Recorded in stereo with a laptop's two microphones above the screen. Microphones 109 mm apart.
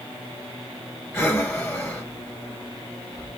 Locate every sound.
1.1 s breathing: 20° left (ahead or behind), 1.5 m